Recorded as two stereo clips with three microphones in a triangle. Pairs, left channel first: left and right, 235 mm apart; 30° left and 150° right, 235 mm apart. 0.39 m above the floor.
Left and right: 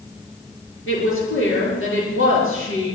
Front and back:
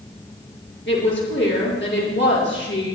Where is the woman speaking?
65° left, 6.5 m.